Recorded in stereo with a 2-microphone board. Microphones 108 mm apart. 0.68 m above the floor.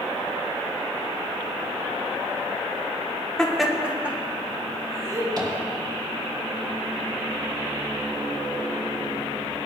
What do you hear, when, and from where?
3.4 s laughter: 10° left (ahead or behind), 1.4 m; by 5.3 s 30° right (ahead or behind), 3.5 m
5.4 s tapping: 40° right (ahead or behind), 3 m